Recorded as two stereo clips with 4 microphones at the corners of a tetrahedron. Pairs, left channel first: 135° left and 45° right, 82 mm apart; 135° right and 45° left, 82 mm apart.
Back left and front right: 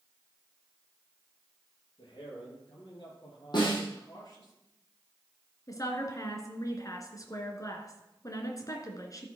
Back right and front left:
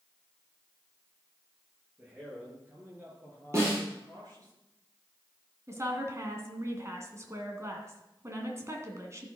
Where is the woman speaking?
95° left, 2 m.